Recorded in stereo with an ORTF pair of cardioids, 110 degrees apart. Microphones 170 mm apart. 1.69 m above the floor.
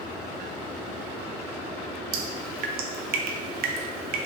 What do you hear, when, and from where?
2.1 s dripping: 65° right, 0.6 m